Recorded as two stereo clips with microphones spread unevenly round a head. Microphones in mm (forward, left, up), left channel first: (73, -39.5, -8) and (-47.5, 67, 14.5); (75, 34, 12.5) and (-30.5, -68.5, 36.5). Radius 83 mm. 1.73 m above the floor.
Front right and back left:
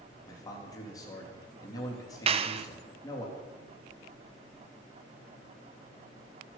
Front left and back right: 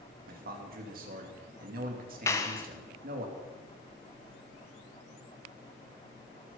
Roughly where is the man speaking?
Behind right.